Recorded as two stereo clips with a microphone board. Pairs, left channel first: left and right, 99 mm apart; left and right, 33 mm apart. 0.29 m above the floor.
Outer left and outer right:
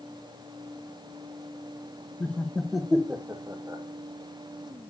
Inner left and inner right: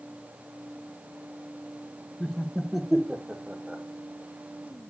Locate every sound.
2.2 s laughter: 20° left (ahead or behind), 0.9 m; by 3.8 s 35° right (ahead or behind), 1.0 m